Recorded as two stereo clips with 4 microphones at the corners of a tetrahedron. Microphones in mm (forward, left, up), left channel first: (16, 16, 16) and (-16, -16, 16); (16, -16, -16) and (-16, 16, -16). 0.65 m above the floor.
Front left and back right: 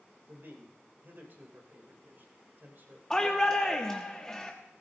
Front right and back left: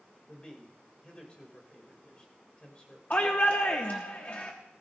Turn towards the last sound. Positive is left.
turn(degrees=-20)